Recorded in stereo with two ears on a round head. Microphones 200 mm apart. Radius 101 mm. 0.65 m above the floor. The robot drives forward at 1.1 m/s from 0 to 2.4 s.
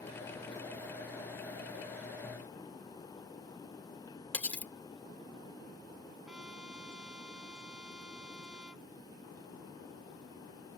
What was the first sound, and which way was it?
Cutlery clinking, 5° left (ahead or behind).